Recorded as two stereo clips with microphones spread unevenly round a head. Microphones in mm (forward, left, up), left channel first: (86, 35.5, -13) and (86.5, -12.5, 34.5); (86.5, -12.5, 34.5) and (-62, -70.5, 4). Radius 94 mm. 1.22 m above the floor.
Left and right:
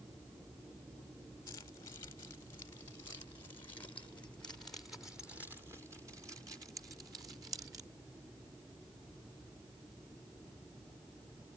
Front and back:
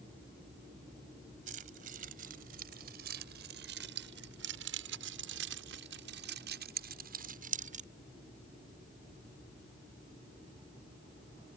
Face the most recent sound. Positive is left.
turn(degrees=-110)